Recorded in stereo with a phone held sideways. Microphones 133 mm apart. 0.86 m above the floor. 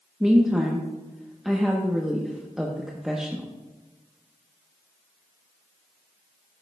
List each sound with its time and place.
0.2 s a woman speaking: 5° right (ahead or behind), 0.9 m